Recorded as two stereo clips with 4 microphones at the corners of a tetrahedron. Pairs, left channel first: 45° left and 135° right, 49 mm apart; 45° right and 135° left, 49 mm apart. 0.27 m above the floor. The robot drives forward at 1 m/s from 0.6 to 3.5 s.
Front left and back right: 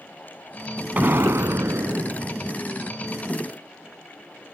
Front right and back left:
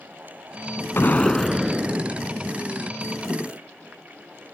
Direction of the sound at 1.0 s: 80° right.